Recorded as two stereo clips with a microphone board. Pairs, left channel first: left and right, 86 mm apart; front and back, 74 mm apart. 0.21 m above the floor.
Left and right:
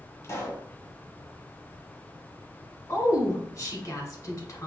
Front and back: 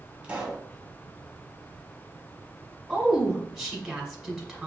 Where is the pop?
115° left, 1.4 m.